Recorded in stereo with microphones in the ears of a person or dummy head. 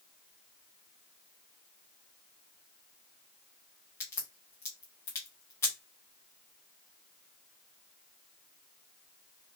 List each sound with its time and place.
4.0 s a crack: 15° left (ahead or behind), 1.0 m